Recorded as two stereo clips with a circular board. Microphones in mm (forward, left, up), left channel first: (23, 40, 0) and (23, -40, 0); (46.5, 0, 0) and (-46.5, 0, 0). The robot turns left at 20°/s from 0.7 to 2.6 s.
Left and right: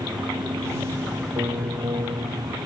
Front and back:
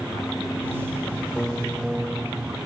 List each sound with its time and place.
1.4 s a piano: 85° right; by 2.6 s 110° right